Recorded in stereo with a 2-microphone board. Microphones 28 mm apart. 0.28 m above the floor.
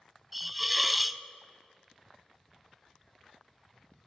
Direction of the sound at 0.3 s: Centre (ahead or behind).